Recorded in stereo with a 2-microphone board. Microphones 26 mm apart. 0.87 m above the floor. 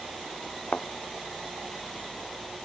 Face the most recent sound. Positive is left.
turn(degrees=55)  # may be behind; listen again after turning